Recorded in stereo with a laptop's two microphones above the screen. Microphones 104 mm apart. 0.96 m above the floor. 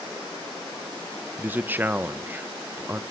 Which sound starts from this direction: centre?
A man speaking, at 1.4 s.